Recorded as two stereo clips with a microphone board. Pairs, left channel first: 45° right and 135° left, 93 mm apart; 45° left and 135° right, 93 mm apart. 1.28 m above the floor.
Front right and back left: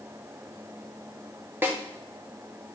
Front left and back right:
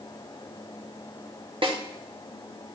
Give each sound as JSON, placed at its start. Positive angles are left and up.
{"t": 1.6, "sound": "a snare drum", "azimuth_deg": -160, "distance_m": 1.0}